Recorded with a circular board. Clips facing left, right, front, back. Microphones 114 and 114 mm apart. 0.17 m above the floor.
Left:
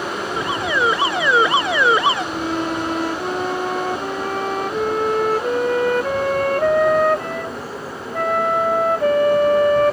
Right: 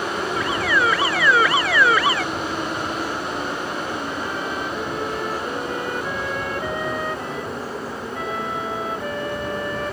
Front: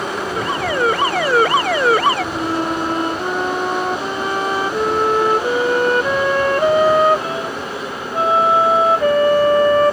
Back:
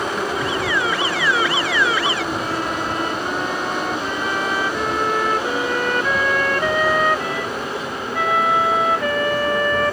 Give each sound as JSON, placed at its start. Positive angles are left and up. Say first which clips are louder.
{"t": 0.4, "sound": "an alarm", "louder": "left 1 dB, front 3 dB", "azimuth_deg": 30}
{"t": 2.3, "sound": "a flute", "louder": "left 4 dB, front 4 dB", "azimuth_deg": 60}